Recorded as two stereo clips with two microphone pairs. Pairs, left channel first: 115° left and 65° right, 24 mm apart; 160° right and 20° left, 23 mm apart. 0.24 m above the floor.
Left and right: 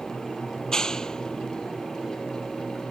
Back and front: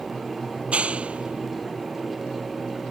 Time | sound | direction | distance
0.6 | a clap | 55° left | ?